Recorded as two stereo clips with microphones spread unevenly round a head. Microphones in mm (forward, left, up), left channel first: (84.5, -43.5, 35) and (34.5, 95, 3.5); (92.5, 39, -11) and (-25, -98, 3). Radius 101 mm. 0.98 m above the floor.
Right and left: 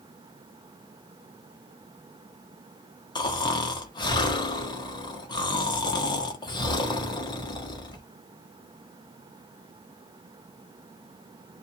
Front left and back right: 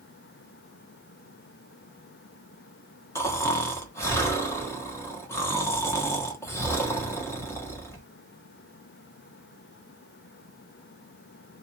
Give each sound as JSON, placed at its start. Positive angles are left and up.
{"t": 3.1, "sound": "snoring", "azimuth_deg": -10, "distance_m": 0.9}